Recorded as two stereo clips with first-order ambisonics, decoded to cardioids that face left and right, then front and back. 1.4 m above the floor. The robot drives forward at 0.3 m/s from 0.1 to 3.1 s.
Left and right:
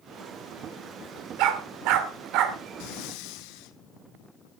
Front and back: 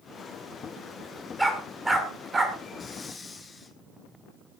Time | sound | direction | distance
1.4 | a dog barking | 95° right | 1.8 m
2.8 | breathing | 70° left | 1.1 m